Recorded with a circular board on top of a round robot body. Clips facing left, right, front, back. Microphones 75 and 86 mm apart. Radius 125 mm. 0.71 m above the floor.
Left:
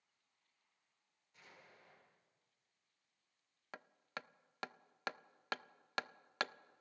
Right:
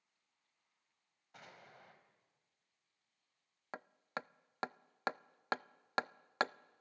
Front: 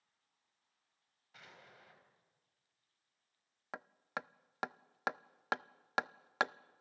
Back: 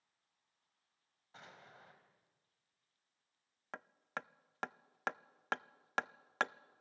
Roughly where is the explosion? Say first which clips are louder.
Right 6 dB, back 2 dB; behind right.